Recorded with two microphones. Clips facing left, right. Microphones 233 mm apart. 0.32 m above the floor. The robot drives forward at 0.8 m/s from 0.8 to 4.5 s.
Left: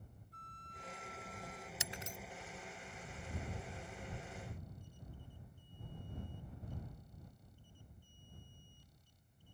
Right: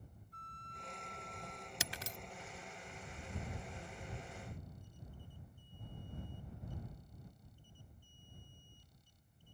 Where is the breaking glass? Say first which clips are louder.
Right 2 dB; 70° right (ahead or behind).